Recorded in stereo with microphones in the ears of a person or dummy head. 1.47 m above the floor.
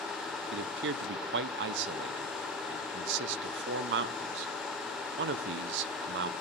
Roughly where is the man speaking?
Right.